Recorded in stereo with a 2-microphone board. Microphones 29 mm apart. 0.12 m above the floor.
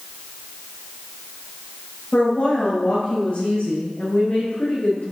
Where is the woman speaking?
50° left (ahead or behind), 3 m; by 5.0 s 70° left (ahead or behind), 4 m.